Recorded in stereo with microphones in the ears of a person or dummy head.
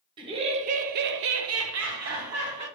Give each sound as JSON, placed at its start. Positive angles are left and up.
{"t": 0.2, "sound": "laughter", "side_deg": -30, "distance_m": 1.4}